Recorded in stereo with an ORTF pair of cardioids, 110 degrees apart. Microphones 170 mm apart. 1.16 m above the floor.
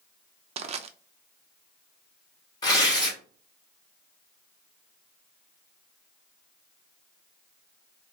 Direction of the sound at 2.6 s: 25° left.